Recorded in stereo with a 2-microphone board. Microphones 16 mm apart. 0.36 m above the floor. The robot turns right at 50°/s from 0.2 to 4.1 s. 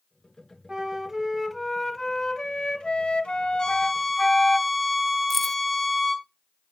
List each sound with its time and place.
0.7 s a flute: 35° right, 1.1 m; by 4.6 s 135° left, 1.1 m
3.6 s a violin: 40° left (ahead or behind), 2 m; by 6.3 s 15° left (ahead or behind), 2 m
5.3 s keys jangling: 15° left (ahead or behind), 0.6 m